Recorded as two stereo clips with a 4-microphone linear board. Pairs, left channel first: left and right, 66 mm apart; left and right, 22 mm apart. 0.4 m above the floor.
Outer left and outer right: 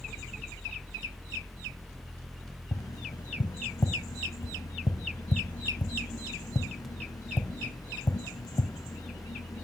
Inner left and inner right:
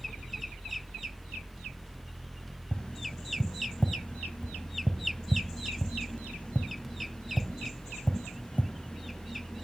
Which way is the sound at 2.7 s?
70° left (ahead or behind).